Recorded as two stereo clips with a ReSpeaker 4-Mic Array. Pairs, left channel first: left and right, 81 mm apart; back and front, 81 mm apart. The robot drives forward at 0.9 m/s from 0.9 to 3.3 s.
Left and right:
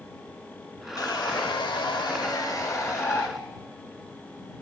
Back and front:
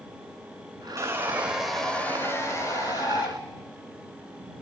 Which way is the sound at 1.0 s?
55° left.